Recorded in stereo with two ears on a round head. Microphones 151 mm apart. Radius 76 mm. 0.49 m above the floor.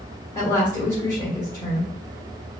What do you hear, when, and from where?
0.3 s a woman speaking: 20° left (ahead or behind), 1.6 m